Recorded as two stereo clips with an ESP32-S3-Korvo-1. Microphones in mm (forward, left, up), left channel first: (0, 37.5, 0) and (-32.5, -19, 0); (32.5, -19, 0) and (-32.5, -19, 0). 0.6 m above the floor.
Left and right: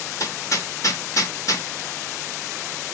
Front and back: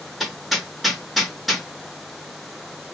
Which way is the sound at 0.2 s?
90° left.